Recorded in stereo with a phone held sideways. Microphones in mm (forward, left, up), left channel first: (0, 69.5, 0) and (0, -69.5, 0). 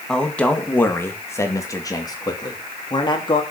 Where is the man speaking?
5° left (ahead or behind), 2 m; by 3.4 s 35° left (ahead or behind), 3.5 m.